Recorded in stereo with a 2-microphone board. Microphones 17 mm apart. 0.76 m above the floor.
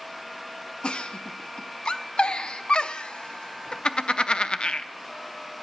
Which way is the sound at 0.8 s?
75° left (ahead or behind).